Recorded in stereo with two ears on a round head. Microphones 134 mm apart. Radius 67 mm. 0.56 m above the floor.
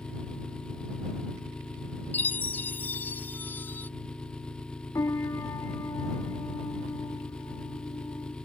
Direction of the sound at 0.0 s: 5° left (ahead or behind).